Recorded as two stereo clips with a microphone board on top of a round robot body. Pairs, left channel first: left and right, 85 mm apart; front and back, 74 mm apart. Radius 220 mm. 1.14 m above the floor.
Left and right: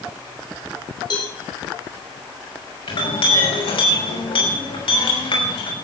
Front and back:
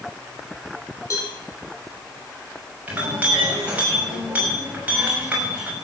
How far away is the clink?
About 6 m.